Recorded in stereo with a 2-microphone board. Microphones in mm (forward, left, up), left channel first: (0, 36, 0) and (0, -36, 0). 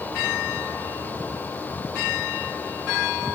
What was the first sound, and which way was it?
Only background noise.